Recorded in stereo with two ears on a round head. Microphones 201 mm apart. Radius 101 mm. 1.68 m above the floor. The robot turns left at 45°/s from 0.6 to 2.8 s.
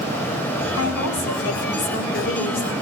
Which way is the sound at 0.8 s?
110° left.